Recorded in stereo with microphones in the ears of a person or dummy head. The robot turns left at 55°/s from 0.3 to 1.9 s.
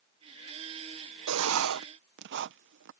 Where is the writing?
85° right; by 2.9 s 60° right (ahead or behind).